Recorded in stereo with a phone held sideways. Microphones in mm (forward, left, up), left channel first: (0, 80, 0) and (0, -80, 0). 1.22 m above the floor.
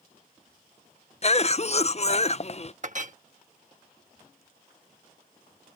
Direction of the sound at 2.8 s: 50° right (ahead or behind).